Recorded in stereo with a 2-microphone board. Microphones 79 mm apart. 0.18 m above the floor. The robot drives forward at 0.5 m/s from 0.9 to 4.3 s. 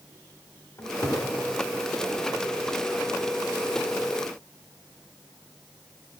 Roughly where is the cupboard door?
Left.